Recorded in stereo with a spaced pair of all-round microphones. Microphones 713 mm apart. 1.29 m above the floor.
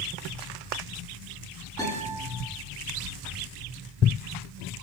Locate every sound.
1.8 s a guitar: 5° left (ahead or behind), 7.5 m